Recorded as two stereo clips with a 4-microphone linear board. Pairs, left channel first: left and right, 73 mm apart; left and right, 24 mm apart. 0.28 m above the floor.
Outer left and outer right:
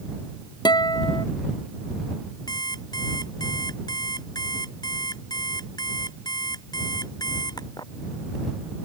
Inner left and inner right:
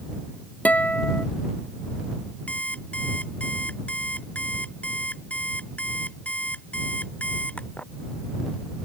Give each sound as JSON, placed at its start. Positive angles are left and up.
{"t": 0.7, "sound": "a guitar", "side_deg": 80}
{"t": 2.5, "sound": "an alarm clock", "side_deg": 70}